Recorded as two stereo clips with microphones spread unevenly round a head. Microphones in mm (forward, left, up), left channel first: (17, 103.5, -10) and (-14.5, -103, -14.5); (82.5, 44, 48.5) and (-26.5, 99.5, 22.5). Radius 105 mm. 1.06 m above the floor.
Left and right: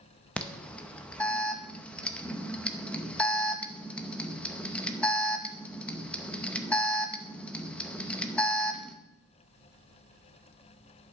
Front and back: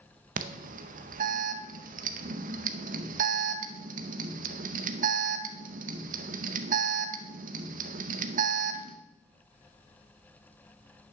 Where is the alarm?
165° left, 0.7 m.